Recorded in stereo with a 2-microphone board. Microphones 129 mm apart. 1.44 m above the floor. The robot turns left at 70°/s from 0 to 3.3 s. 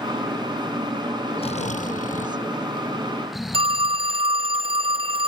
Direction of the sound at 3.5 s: 45° right (ahead or behind).